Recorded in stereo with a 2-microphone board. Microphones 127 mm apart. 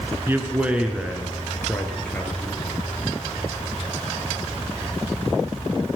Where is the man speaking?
20° right (ahead or behind), 1.5 m; by 2.6 s 15° left (ahead or behind), 2 m.